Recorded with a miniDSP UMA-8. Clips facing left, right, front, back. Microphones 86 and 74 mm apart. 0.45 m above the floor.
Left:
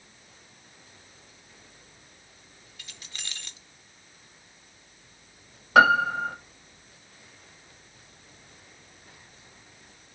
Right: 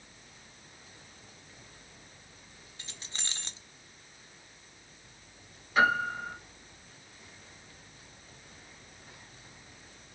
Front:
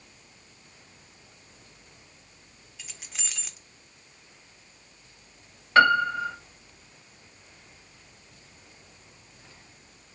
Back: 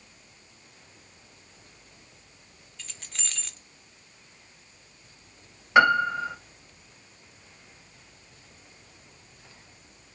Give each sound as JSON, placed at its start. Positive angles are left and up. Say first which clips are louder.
{"t": 2.8, "sound": "keys jangling", "louder": "even, back 1 dB", "azimuth_deg": -75, "distance_m": 0.6}
{"t": 5.8, "sound": "a piano", "louder": "left 8 dB, even", "azimuth_deg": 105, "distance_m": 0.6}